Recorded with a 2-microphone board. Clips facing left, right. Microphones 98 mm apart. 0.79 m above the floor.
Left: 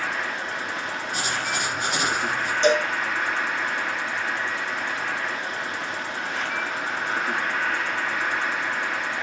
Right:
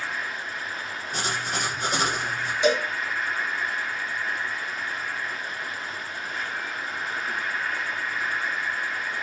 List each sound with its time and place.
0.0 s an insect: 75° left (ahead or behind), 0.8 m
1.1 s writing: 45° right (ahead or behind), 7.5 m
2.6 s a cowbell: 10° right (ahead or behind), 2.5 m